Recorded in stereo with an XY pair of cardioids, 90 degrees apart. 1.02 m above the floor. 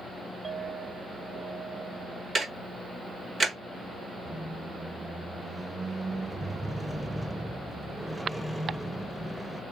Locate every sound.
0.4 s a clink: 45° right, 1.4 m
2.4 s ticking: 45° right, 1.3 m
4.2 s a squeak: 15° right, 0.6 m